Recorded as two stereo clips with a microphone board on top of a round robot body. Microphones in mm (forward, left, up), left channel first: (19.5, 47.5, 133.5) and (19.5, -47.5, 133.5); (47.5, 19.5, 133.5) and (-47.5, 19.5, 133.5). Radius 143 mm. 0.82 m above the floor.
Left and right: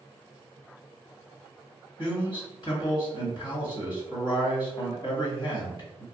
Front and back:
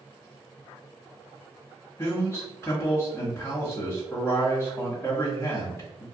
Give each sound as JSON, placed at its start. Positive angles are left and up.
{"t": 2.0, "sound": "a man speaking", "azimuth_deg": 70, "distance_m": 1.6}